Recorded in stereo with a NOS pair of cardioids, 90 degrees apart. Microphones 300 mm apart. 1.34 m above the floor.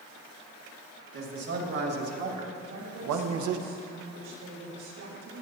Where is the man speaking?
50° right, 3 m; by 3.6 s 80° right, 0.8 m.